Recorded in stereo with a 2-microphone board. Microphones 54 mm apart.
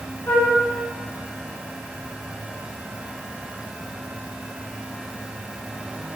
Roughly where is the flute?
Left.